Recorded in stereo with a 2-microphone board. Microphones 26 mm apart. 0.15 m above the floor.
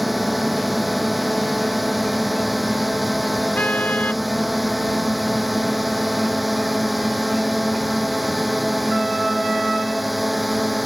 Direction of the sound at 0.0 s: 5° right (ahead or behind).